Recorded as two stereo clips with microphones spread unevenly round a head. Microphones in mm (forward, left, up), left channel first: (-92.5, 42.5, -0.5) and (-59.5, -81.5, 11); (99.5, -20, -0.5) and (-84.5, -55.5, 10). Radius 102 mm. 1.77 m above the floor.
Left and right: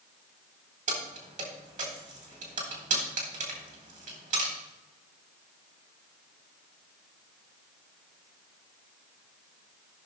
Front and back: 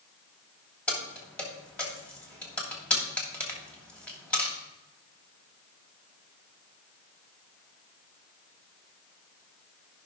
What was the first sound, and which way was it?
Keys jangling, 75° right.